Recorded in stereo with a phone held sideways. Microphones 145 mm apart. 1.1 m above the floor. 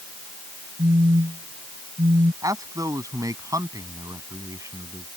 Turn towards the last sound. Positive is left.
turn(degrees=-25)  # may be behind; listen again after turning